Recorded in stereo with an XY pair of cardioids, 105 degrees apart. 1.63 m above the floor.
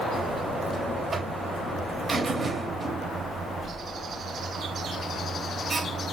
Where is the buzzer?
35° right, 0.6 m.